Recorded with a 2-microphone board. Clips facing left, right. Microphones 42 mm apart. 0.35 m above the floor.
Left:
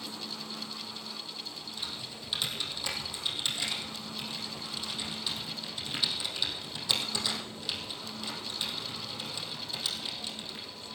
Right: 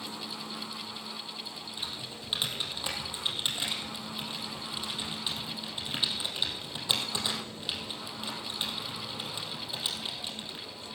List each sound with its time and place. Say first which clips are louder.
1.8 s typing on a keyboard: right 1 dB; 20° right (ahead or behind), 2.5 m